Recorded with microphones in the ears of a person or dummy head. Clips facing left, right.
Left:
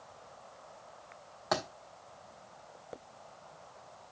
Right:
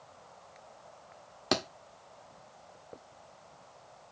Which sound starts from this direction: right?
A thud, at 1.5 s.